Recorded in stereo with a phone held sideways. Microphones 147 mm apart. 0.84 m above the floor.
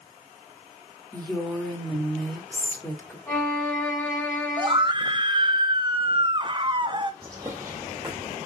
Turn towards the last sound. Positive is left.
turn(degrees=-20)  # may be behind; listen again after turning